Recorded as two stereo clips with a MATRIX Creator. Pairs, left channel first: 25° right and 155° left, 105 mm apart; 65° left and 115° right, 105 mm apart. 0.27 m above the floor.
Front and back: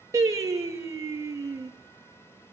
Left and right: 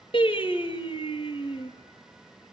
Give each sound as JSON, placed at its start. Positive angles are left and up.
{"t": 0.1, "sound": "singing", "azimuth_deg": 100, "distance_m": 5.0}